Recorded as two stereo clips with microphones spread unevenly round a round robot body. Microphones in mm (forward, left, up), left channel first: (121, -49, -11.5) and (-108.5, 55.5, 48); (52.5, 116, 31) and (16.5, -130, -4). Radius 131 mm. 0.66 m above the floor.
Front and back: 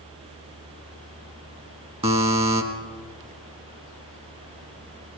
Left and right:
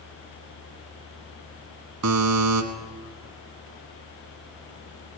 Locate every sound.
2.0 s a buzzer: 140° right, 1.4 m